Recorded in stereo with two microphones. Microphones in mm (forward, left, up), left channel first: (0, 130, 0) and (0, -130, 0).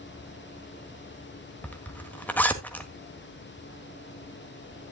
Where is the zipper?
5° left (ahead or behind), 1.5 m.